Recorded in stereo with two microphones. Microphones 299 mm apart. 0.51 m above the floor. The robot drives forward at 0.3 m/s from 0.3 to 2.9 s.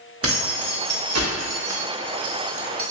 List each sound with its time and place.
0.2 s keys jangling: 50° right (ahead or behind), 0.8 m; by 2.9 s 45° right (ahead or behind), 0.8 m